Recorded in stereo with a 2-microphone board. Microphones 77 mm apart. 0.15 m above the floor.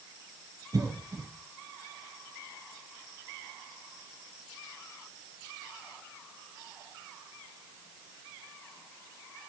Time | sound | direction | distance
0.7 | a cough | 45° right (ahead or behind) | 4 m